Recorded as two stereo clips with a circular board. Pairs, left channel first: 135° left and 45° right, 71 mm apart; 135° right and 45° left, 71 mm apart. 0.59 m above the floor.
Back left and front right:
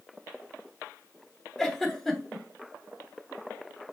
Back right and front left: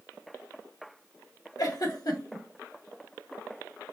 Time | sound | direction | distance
1.6 | a giggle | 140° right | 0.9 m